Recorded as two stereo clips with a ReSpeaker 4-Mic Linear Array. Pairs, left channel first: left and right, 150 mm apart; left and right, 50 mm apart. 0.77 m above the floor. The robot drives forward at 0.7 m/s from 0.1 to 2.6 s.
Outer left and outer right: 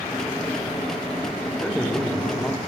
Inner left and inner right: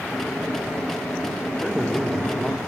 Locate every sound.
1.6 s a man speaking: 5° left (ahead or behind), 2.5 m